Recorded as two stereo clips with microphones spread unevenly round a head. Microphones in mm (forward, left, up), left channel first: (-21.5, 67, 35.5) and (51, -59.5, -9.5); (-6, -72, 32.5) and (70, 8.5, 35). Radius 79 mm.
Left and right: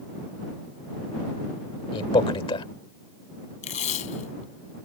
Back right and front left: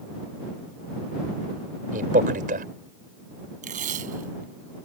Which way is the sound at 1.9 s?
65° left.